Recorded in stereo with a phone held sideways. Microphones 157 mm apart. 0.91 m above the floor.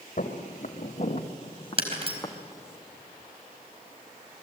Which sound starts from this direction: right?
Breaking glass, at 1.8 s.